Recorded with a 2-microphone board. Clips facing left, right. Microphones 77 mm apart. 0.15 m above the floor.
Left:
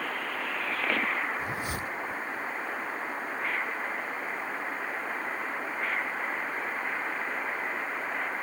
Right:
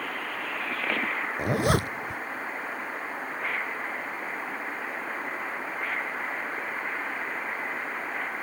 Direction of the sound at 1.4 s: 75° right (ahead or behind).